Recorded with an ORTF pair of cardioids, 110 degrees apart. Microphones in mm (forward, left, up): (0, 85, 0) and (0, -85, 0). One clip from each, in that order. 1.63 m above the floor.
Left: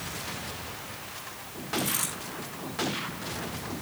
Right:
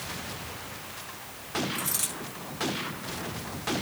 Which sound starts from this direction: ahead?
A dropped coin, at 1.8 s.